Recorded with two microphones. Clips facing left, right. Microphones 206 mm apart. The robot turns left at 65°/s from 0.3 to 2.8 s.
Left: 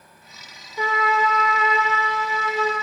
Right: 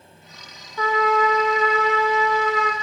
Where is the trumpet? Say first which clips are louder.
Right 3 dB; 20° left, 1.8 m; by 2.7 s 110° right, 1.8 m.